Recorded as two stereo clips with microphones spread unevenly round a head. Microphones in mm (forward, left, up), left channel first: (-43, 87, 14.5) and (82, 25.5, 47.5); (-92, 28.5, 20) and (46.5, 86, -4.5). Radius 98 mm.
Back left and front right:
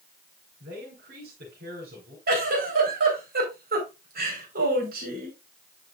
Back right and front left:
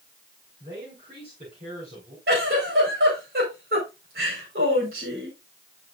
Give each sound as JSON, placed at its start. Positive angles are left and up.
{"t": 0.6, "sound": "a man speaking", "azimuth_deg": -35, "distance_m": 5.0}
{"t": 2.3, "sound": "a giggle", "azimuth_deg": -20, "distance_m": 4.5}